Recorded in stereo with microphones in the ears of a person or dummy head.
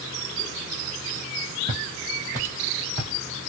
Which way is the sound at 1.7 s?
30° right (ahead or behind).